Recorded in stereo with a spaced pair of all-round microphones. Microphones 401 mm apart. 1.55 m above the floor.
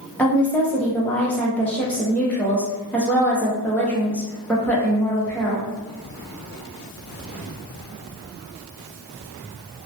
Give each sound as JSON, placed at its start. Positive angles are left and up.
{"t": 0.2, "sound": "a woman speaking", "side_deg": 5, "distance_m": 0.7}